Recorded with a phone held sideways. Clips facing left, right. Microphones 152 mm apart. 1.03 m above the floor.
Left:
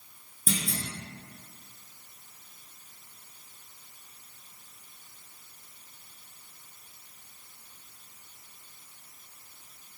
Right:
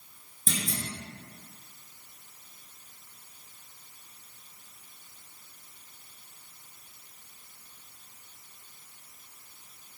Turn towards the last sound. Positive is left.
turn(degrees=5)  # may be behind; listen again after turning